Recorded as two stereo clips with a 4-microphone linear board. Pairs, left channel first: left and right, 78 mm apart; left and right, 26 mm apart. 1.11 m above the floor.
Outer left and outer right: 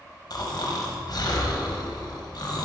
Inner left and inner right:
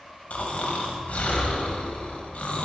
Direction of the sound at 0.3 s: 55° left (ahead or behind).